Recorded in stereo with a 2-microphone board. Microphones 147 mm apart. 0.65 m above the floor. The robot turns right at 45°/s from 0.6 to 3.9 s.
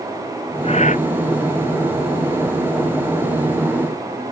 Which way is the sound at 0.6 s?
40° left (ahead or behind).